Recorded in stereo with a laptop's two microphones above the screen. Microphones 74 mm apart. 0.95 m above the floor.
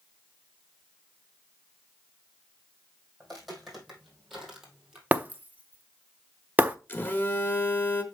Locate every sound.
3.2 s footsteps: 5° left (ahead or behind), 3 m; by 5.0 s 10° right (ahead or behind), 2 m
5.1 s breaking glass: 25° right (ahead or behind), 0.5 m
6.9 s a phone buzzing: 30° left (ahead or behind), 1.2 m